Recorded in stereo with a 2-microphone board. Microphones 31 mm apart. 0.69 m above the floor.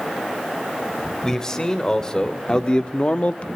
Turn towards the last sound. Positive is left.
turn(degrees=45)  # may be behind; listen again after turning